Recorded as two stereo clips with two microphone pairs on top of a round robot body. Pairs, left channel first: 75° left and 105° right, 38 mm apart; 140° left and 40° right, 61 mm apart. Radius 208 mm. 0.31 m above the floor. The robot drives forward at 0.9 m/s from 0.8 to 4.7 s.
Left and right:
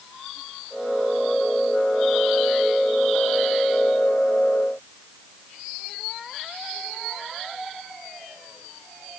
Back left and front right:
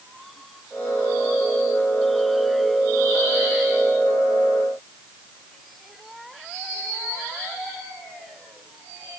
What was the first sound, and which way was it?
Only background noise.